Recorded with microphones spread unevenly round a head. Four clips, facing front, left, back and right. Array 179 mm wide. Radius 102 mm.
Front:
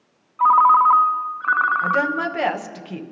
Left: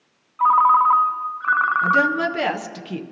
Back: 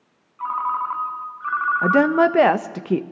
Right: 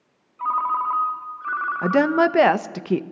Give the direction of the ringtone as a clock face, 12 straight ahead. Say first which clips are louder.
Left 8 dB, front 11 dB; 11 o'clock.